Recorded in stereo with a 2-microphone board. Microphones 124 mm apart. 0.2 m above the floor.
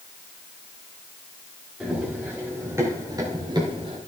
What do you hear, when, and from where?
1.8 s running footsteps: 10° right (ahead or behind), 5.5 m; by 4.0 s 45° right (ahead or behind), 4.5 m